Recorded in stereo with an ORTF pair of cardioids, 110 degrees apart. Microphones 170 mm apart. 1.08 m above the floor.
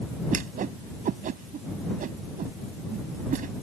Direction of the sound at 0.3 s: 50° right.